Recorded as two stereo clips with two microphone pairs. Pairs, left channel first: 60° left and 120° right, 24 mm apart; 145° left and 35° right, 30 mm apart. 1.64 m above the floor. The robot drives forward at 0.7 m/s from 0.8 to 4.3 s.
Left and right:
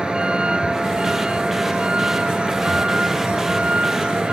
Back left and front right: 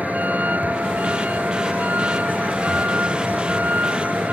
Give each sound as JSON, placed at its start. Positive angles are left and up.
{"t": 0.0, "sound": "a vehicle", "azimuth_deg": -65}